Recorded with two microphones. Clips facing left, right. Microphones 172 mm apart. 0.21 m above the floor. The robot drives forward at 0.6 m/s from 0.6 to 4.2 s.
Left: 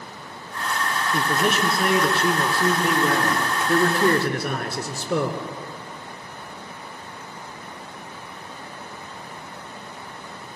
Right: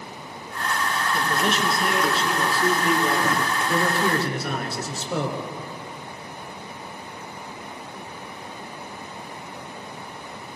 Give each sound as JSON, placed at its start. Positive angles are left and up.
{"t": 1.1, "sound": "a man speaking", "side_deg": 55, "distance_m": 3.5}